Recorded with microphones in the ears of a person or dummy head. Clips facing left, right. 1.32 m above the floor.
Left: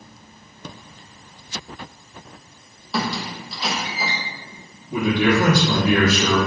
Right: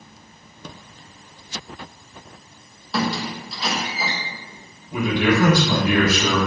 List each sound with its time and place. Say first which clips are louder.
2.9 s a squeak: right 2 dB; 5° left (ahead or behind), 0.7 m
4.9 s a man speaking: left 1 dB; 85° left, 1.9 m